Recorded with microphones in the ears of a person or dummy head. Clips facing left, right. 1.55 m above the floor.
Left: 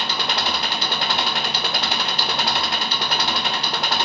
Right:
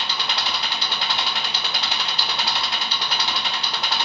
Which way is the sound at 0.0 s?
45° left (ahead or behind).